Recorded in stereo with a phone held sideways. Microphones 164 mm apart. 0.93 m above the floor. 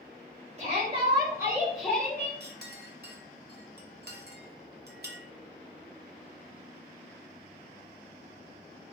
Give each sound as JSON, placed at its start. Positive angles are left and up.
{"t": 0.6, "sound": "a shout", "side_deg": -40, "distance_m": 1.8}
{"t": 2.4, "sound": "a clink", "side_deg": -70, "distance_m": 0.6}